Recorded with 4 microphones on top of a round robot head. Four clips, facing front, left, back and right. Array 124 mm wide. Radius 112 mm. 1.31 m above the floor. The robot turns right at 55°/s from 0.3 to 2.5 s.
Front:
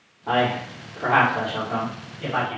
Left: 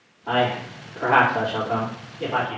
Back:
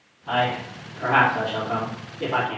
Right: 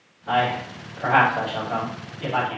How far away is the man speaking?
About 3 m.